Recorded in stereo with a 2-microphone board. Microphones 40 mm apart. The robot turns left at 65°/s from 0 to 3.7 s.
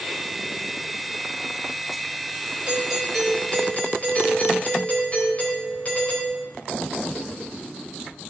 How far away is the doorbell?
About 3.5 m.